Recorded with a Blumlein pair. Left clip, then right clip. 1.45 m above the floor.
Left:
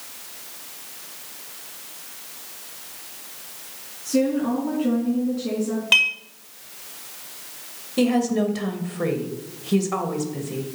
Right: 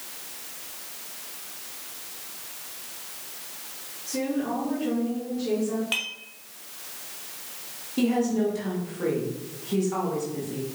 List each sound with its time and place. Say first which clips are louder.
4.0 s a woman speaking: left 6 dB; 70° left, 3 m
5.9 s dishes clattering: left 15 dB; 70° left, 1.5 m
8.0 s a woman speaking: left 4 dB; 65° left, 1.6 m